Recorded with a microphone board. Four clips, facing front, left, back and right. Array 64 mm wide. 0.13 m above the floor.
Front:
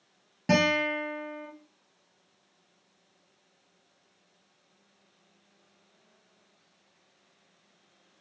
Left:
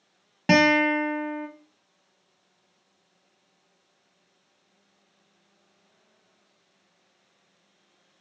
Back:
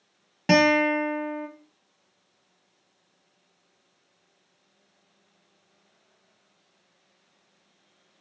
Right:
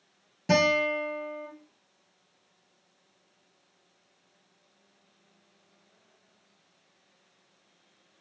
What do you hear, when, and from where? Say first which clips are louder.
0.5 s a guitar: left 5 dB, back 6 dB; 120° left, 1.4 m